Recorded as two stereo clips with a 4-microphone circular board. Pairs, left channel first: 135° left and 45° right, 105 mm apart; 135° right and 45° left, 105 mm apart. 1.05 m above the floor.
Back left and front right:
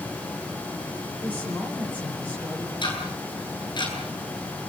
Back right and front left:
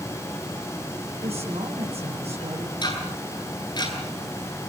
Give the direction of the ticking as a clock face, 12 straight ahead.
6 o'clock.